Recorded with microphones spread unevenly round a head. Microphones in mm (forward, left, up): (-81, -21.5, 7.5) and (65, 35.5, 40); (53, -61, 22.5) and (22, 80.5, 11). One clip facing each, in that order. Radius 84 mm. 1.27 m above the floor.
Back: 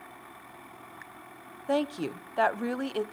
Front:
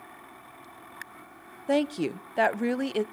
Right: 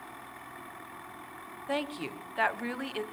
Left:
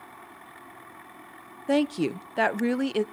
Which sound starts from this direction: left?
A woman speaking, at 1.7 s.